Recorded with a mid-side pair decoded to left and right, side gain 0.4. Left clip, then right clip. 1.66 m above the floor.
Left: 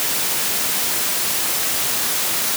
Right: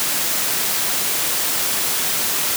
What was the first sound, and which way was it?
Only background noise.